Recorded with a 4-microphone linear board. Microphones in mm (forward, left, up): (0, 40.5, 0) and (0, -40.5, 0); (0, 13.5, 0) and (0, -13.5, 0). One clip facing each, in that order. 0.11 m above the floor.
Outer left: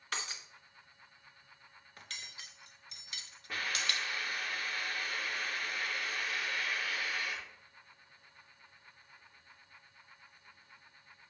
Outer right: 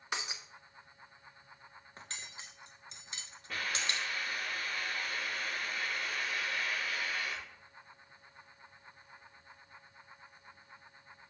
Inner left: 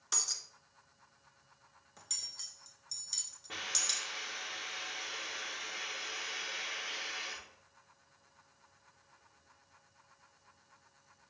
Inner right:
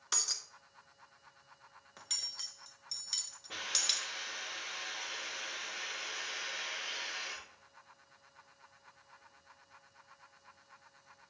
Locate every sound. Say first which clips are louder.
0.1 s breaking glass: outer right 1 dB, inner right 1 dB; 20° right (ahead or behind), 0.7 m
2.0 s cutlery clinking: outer right 1 dB, inner right 3 dB; 30° right (ahead or behind), 0.7 m
3.5 s a hiss: even, inner right 1 dB; 10° left (ahead or behind), 4.5 m